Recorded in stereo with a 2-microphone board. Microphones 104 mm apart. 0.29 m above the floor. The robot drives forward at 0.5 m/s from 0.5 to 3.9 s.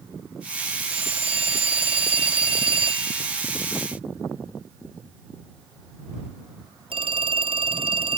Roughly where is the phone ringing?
Right.